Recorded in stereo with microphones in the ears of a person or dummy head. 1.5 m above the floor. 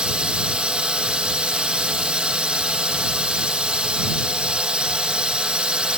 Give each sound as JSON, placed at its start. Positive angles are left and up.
{"t": 0.0, "sound": "a drone", "side_deg": -5}